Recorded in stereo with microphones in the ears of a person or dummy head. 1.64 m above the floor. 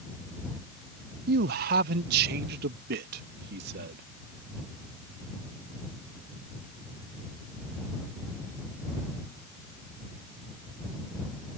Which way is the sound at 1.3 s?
50° right (ahead or behind).